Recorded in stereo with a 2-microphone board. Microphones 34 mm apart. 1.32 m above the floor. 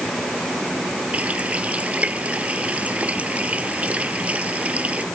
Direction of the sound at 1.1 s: 35° right (ahead or behind).